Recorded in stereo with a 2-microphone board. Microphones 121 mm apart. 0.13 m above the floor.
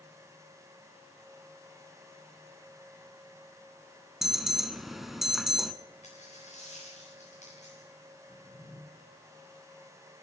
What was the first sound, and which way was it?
An alarm, centre (ahead or behind).